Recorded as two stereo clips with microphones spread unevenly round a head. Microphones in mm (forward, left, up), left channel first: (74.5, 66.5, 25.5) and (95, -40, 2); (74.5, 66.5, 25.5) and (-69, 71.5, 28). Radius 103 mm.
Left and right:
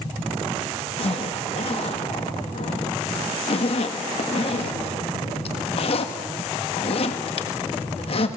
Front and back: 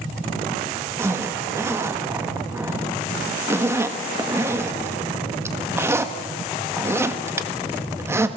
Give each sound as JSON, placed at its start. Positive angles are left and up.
{"t": 1.0, "sound": "a zipper", "azimuth_deg": 105, "distance_m": 1.6}